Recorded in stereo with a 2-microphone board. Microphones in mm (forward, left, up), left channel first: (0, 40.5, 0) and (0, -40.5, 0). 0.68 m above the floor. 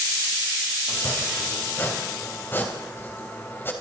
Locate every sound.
0.9 s chopping: 30° left (ahead or behind), 3 m